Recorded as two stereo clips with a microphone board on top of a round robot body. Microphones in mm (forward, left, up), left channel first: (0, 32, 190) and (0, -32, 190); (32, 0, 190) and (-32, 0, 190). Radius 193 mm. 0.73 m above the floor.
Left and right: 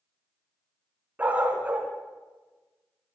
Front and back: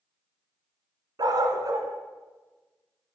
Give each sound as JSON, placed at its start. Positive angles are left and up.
{"t": 1.2, "sound": "a dog barking", "azimuth_deg": -155, "distance_m": 2.0}